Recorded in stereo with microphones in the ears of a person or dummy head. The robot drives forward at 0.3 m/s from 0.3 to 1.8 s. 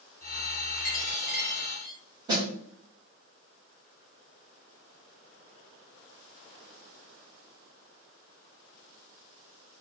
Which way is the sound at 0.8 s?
55° left (ahead or behind).